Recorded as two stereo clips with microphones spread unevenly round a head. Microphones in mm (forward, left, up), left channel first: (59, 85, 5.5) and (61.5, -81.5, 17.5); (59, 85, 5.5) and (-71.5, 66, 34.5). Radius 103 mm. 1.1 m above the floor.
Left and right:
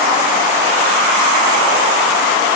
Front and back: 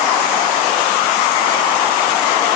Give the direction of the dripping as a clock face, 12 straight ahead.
No dripping in this recording.